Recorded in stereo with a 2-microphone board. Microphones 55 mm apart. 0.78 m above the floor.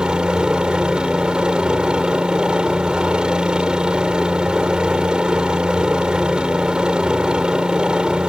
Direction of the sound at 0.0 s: 15° right (ahead or behind).